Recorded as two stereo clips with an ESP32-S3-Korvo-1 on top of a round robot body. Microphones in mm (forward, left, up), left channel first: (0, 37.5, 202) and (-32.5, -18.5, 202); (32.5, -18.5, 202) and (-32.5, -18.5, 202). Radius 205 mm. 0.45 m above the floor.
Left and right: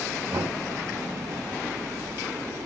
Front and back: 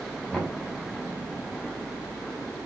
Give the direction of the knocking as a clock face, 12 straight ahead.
3 o'clock.